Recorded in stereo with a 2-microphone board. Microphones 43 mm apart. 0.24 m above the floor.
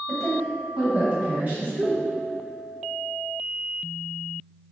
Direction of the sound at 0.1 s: 15° left (ahead or behind).